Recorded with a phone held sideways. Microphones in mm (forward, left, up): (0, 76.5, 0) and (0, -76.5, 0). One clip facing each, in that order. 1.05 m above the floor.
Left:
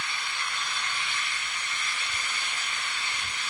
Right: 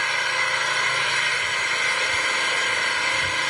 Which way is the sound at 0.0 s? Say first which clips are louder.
Right 9 dB; 85° right.